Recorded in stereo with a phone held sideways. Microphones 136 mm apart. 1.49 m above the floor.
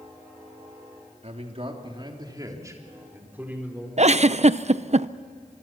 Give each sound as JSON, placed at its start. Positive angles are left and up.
{"t": 1.2, "sound": "a man speaking", "side_deg": -55, "distance_m": 3.0}
{"t": 4.0, "sound": "a giggle", "side_deg": -55, "distance_m": 0.5}